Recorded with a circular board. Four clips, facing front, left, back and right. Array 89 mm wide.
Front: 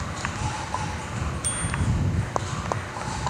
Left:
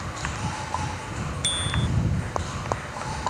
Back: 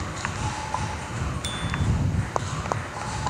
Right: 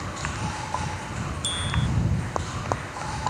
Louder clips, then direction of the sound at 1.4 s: Even, even; 100° left.